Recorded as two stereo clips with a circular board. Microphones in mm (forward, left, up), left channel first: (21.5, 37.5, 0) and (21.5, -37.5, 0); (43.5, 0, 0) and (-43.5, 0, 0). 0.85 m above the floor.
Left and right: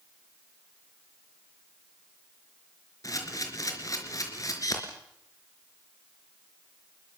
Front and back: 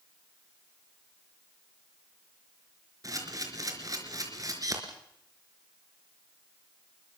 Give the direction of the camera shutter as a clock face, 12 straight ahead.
8 o'clock.